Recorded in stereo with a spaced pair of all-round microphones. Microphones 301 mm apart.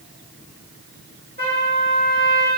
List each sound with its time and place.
1.4 s a trumpet: 30° right (ahead or behind), 1.4 m